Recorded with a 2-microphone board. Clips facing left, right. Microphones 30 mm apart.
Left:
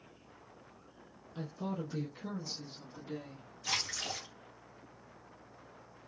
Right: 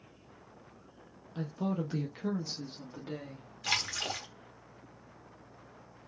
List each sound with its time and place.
1.4 s a woman speaking: 20° right (ahead or behind), 0.7 m; by 3.5 s 60° right (ahead or behind), 1.5 m
3.6 s a splash: 75° right (ahead or behind), 1.0 m